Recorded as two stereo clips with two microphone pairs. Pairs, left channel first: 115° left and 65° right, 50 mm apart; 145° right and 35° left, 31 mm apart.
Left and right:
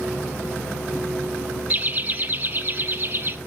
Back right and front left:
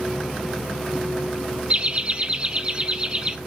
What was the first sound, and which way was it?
Laughter, 10° right.